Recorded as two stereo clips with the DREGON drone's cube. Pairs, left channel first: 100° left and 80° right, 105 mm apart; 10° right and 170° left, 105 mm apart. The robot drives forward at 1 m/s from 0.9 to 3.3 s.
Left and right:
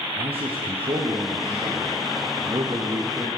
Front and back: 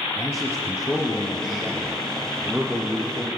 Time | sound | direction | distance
0.2 | a man speaking | 85° right | 3.5 m